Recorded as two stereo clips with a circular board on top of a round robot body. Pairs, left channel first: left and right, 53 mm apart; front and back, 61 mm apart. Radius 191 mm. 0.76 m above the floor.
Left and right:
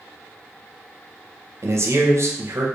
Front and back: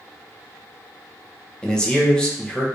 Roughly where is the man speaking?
Right.